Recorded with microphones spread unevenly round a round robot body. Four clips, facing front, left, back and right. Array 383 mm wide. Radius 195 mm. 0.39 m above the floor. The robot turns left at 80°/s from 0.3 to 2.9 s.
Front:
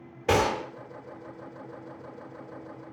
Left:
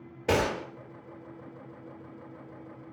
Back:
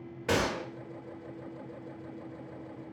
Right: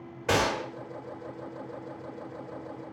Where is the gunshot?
50° left, 1.1 m; by 0.7 s 20° left, 1.1 m.